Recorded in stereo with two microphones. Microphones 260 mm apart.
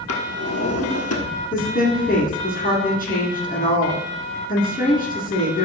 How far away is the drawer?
About 1.4 m.